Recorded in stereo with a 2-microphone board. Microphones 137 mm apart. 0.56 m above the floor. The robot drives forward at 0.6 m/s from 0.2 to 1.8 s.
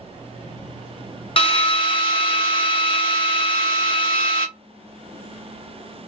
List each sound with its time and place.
1.4 s a drill: 40° left (ahead or behind), 0.7 m